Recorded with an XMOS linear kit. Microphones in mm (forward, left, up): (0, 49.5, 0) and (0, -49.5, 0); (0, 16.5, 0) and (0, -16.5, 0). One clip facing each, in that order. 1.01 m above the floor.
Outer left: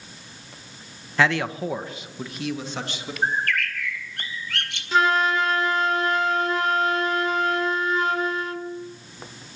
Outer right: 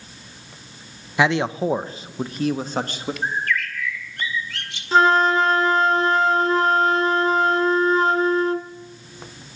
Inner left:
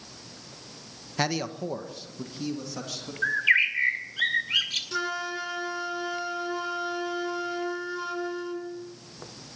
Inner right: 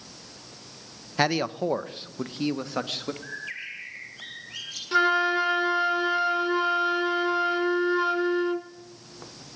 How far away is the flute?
About 1.2 m.